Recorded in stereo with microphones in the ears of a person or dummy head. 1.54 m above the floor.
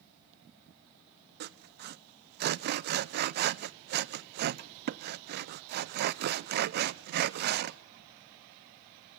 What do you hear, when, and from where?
1.4 s sawing: 55° right (ahead or behind), 0.5 m